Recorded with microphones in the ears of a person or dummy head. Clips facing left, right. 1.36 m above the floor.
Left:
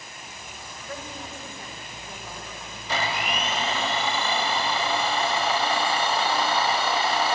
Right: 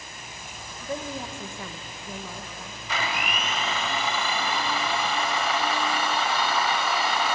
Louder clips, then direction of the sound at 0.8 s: Right 6 dB; 15° right (ahead or behind).